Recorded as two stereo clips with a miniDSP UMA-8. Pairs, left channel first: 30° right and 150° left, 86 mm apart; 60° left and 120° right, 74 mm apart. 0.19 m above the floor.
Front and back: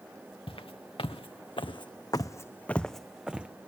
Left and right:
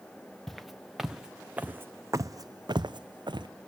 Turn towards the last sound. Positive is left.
turn(degrees=-135)